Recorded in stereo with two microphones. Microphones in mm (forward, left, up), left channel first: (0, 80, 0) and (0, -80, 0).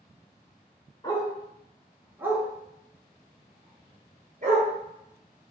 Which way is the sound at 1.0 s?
25° left (ahead or behind).